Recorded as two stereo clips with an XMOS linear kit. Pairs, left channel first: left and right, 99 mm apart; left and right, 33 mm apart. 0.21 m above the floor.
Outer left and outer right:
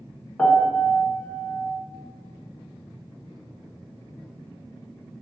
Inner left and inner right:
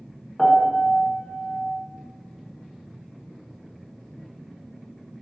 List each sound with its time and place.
0.4 s a piano: 15° left (ahead or behind), 0.5 m